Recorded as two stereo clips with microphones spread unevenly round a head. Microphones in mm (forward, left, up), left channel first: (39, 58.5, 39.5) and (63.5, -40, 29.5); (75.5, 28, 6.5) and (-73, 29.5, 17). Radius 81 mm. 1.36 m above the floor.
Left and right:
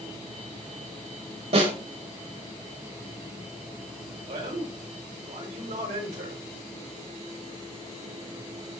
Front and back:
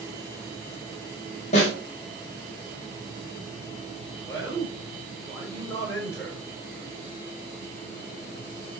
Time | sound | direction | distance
1.5 | a snare drum | 55° right | 5.5 m
4.3 | a man speaking | 75° right | 5.5 m